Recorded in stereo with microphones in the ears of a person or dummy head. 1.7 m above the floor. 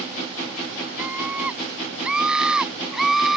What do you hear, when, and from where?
1.0 s a scream: 5° right (ahead or behind); by 3.4 s centre (ahead or behind)